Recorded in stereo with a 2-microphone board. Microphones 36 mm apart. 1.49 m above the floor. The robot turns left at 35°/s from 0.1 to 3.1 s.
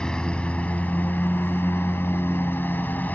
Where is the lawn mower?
155° left; by 3.2 s 50° left.